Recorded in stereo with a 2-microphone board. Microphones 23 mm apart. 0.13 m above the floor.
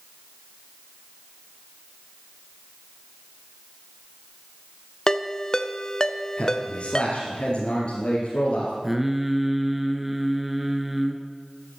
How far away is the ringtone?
About 0.6 m.